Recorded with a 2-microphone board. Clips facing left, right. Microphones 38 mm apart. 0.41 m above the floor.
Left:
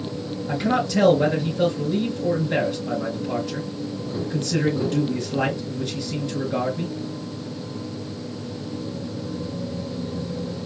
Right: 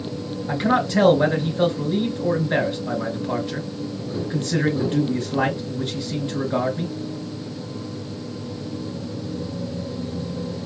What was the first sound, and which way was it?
A man speaking, 35° right (ahead or behind).